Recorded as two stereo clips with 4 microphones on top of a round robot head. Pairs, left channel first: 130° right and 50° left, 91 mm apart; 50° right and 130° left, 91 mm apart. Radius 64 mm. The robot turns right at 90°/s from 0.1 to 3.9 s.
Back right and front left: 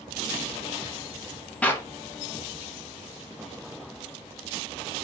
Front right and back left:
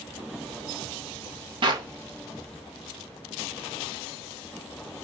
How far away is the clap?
About 0.8 m.